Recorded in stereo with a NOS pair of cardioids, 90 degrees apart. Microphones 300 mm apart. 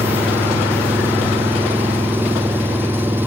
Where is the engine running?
5° right.